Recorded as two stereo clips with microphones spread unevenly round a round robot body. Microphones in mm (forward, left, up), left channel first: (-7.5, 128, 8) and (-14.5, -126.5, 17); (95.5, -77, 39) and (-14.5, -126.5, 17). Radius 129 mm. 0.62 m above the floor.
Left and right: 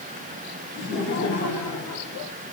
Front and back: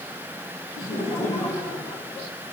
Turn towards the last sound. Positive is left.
turn(degrees=115)